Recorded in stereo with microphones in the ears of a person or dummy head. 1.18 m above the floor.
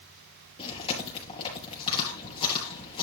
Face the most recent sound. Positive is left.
turn(degrees=30)  # may be behind; listen again after turning